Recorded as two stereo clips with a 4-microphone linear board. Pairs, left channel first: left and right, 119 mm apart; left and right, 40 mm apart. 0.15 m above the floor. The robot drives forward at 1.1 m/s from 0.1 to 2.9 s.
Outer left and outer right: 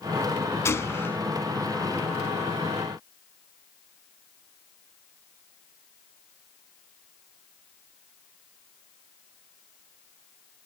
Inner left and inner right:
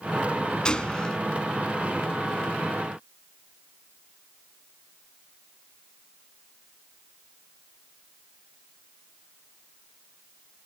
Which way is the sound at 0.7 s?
25° left (ahead or behind).